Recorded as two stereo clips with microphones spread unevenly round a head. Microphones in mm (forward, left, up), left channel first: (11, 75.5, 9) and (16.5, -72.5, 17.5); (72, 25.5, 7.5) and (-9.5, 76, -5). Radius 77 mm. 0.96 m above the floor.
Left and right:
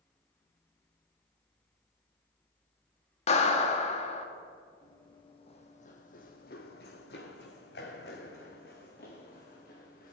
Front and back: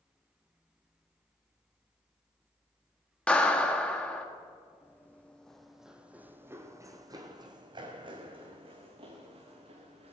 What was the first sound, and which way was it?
A clap, 50° left.